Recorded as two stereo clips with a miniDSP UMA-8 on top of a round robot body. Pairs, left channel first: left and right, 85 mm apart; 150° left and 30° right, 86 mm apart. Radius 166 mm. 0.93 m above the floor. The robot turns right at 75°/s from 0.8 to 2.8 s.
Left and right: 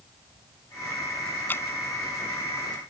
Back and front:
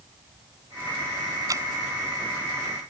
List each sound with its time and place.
1.5 s dripping: 20° left; by 1.7 s 35° left